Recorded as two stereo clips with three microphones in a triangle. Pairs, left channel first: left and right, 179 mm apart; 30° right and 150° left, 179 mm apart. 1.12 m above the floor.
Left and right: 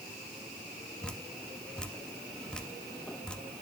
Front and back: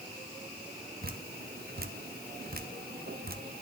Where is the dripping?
175° left, 0.6 m.